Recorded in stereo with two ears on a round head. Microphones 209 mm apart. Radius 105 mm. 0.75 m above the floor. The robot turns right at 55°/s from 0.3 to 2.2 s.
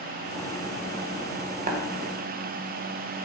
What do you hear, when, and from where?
1.7 s tapping: 35° right (ahead or behind), 1.1 m; by 1.8 s 40° right (ahead or behind), 1.1 m